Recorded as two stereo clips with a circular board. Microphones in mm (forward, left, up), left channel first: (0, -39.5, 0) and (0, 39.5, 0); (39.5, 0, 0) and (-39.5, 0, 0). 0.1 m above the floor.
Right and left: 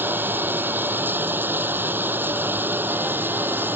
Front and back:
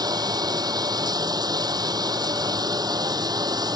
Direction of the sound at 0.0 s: 155° left.